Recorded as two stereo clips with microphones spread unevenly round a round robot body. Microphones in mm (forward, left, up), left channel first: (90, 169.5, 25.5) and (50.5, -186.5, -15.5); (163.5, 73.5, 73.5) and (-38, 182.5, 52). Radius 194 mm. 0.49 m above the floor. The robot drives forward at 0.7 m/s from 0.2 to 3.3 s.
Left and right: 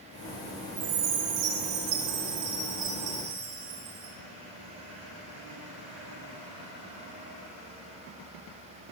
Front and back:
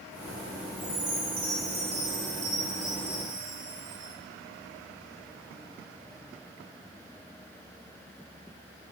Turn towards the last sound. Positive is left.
turn(degrees=-160)